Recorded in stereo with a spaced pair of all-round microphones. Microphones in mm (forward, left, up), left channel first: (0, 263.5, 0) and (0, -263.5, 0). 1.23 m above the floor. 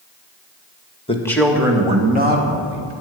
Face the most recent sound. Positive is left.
turn(degrees=-25)  # may be behind; listen again after turning